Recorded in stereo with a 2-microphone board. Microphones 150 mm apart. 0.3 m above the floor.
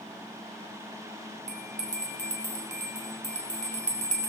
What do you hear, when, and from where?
1.5 s a bell: 50° right (ahead or behind), 2 m